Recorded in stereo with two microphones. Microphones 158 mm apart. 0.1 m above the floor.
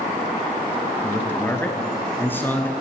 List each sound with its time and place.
1.0 s a man speaking: 10° left (ahead or behind), 1.2 m